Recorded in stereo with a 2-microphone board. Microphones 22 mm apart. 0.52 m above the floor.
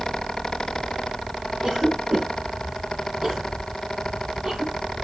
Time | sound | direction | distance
1.6 | a cough | 40° right (ahead or behind) | 7 m